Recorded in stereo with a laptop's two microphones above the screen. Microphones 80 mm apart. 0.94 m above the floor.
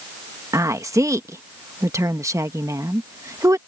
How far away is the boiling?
No boiling in this recording.